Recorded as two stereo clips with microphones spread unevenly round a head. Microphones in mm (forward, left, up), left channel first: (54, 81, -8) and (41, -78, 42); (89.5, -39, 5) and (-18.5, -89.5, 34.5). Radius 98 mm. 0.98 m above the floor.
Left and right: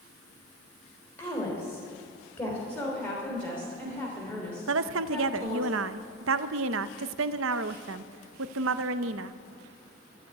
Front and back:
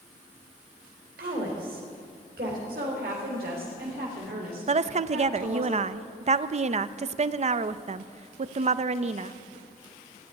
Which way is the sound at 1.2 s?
165° left.